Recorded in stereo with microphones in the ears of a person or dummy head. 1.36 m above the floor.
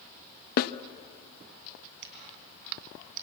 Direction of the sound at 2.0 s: 65° right (ahead or behind).